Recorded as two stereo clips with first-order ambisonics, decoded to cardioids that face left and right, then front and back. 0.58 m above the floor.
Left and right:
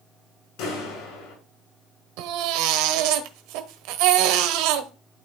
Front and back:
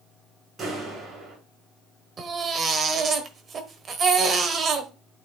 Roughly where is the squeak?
I don't hear a squeak.